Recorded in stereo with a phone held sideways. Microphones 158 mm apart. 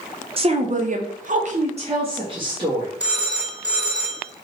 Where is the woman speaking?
35° right (ahead or behind), 0.6 m; by 2.9 s 25° right (ahead or behind), 1.1 m.